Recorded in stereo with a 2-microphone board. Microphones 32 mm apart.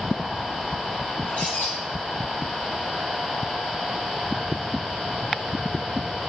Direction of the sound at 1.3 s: 60° left (ahead or behind).